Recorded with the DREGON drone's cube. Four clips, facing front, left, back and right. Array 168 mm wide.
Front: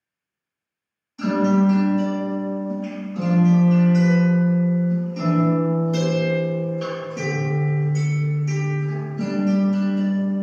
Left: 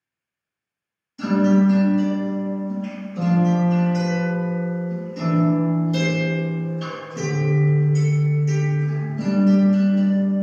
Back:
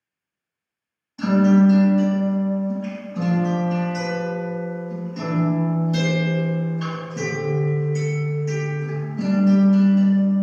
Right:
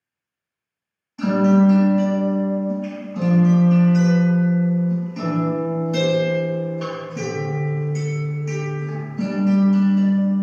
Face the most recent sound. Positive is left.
turn(degrees=-120)